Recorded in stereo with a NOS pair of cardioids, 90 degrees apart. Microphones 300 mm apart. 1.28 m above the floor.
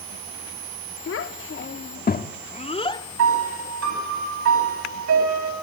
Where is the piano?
60° right, 8 m.